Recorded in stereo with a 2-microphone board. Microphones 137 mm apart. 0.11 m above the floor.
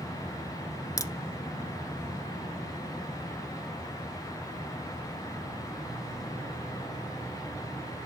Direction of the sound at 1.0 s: 25° left (ahead or behind).